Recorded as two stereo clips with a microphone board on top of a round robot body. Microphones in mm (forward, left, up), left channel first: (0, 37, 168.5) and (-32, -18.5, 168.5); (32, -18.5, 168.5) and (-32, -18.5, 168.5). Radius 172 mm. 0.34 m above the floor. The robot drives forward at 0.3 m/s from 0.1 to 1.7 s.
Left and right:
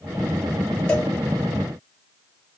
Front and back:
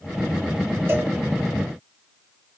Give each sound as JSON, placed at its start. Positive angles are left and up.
{"t": 0.9, "sound": "a cowbell", "azimuth_deg": 135, "distance_m": 2.0}